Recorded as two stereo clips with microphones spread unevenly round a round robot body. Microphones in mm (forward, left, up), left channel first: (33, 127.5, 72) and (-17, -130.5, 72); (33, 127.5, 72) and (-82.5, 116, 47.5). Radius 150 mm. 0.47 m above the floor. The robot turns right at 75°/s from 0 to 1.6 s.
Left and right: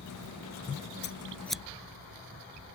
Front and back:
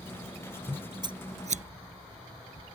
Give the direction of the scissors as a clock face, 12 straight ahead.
8 o'clock.